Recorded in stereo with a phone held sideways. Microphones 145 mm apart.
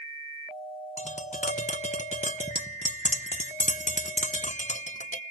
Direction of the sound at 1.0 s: 50° left (ahead or behind).